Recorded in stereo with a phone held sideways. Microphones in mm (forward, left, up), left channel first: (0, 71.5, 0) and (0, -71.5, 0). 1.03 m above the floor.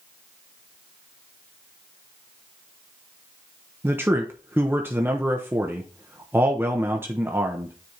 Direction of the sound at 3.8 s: 15° right (ahead or behind).